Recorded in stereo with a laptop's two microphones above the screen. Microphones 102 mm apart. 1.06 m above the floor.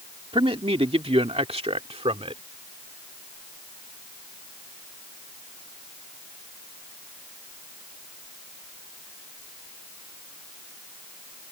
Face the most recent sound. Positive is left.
turn(degrees=-75)  # may be behind; listen again after turning